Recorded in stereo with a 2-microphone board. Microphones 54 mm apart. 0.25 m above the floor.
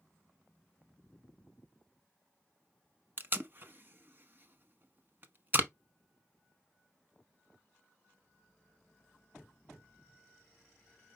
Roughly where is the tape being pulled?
Right.